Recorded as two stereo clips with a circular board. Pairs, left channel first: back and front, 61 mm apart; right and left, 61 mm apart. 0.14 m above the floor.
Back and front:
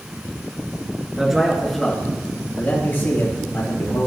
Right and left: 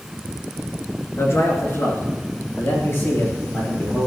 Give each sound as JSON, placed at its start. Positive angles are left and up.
{"t": 1.2, "sound": "a man speaking", "azimuth_deg": -80, "distance_m": 2.5}